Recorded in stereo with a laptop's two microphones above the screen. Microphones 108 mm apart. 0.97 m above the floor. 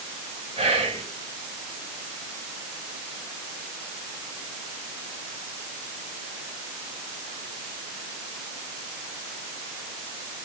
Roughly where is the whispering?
Right.